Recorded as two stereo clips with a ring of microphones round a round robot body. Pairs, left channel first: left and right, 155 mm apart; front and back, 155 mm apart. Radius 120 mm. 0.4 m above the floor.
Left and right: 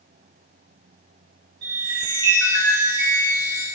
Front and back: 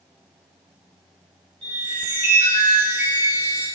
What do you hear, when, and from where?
1.6 s a chime: 115° right, 2.5 m